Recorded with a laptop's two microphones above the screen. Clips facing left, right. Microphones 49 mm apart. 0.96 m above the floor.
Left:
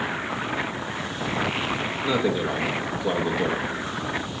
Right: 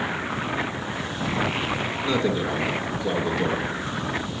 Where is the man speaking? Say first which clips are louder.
Even; 15° left (ahead or behind), 0.8 m.